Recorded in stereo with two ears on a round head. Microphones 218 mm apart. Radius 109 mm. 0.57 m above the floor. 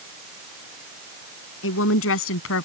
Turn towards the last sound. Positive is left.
turn(degrees=60)  # may be behind; listen again after turning